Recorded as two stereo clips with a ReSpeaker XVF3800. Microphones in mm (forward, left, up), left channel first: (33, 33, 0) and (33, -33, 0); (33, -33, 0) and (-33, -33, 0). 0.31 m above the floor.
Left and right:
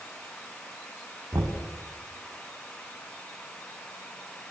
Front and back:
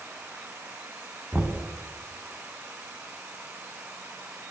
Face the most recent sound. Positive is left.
turn(degrees=-100)